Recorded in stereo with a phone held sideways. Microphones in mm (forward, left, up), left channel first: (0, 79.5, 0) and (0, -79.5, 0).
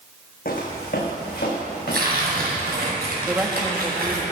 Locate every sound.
0.5 s footsteps: 65° left (ahead or behind), 2.5 m; by 2.9 s 80° left, 5.5 m
1.9 s tearing paper: 75° right (ahead or behind), 3 m
3.2 s a woman speaking: 15° right (ahead or behind), 1.4 m